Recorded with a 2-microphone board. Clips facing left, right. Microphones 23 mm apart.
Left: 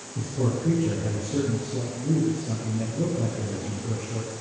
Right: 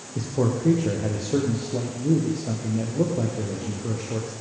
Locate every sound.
0.1 s a man speaking: 80° right, 7 m